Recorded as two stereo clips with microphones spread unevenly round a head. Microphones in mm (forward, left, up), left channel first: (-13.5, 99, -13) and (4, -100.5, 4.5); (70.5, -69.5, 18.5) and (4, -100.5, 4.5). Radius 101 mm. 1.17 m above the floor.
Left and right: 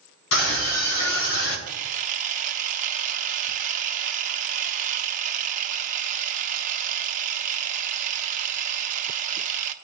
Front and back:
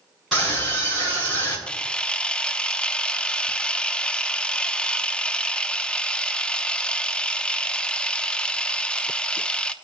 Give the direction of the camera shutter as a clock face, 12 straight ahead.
1 o'clock.